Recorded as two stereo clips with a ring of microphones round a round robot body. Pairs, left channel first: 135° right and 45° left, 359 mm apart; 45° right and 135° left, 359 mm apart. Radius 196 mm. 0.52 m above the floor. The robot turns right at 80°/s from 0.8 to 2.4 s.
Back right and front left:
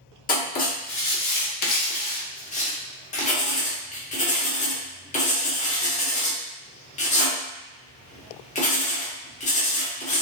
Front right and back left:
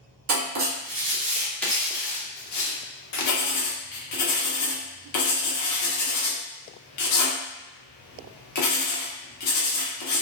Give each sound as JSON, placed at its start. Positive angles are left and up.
{"t": 0.3, "sound": "writing", "azimuth_deg": 165, "distance_m": 0.8}